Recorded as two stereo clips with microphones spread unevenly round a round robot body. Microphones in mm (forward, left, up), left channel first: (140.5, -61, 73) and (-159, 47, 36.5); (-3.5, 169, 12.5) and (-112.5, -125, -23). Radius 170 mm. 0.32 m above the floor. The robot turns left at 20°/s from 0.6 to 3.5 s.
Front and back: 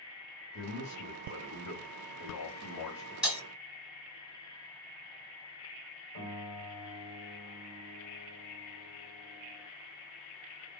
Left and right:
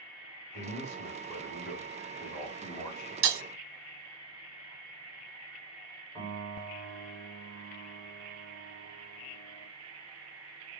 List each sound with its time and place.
0.5 s a man speaking: 35° left, 1.8 m; by 3.1 s 15° right, 1.8 m
3.2 s breaking glass: 115° right, 0.7 m
6.2 s a piano: 20° right, 2.0 m